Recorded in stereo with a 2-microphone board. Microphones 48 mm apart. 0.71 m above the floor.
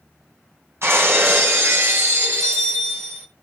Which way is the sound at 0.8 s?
60° right (ahead or behind).